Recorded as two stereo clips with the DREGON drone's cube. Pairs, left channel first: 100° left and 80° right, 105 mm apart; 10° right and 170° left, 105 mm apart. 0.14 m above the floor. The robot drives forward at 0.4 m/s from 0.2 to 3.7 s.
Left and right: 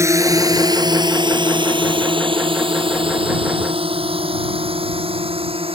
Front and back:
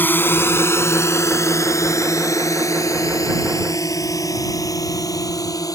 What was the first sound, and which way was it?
A drone, 60° right.